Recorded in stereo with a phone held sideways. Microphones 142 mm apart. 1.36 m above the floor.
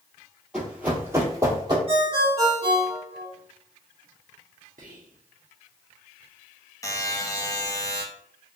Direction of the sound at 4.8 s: 60° right (ahead or behind).